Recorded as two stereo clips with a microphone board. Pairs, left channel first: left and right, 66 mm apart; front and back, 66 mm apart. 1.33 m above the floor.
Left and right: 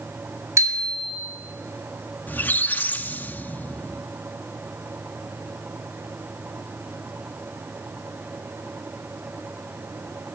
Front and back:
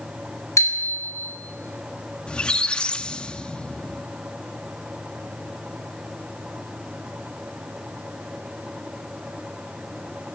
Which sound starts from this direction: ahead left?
A squeak, at 2.3 s.